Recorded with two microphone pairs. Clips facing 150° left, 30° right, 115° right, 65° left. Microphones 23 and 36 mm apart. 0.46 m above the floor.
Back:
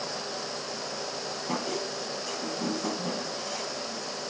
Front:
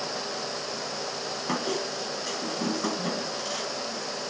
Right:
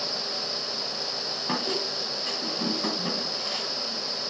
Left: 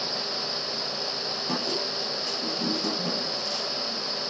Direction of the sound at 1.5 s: 70° right.